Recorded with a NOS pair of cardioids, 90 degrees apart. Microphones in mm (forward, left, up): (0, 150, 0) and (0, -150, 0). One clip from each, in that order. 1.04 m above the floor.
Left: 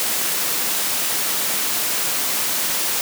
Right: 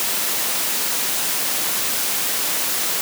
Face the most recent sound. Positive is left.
No sound to turn to.